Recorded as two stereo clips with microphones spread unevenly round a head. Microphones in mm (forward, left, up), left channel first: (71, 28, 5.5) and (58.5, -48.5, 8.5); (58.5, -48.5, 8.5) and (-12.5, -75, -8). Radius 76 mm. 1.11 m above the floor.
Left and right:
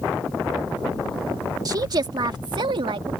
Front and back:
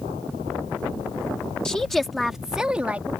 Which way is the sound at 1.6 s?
60° right.